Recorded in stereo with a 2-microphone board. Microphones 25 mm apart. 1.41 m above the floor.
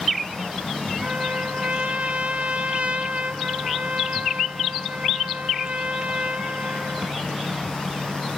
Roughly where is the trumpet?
Right.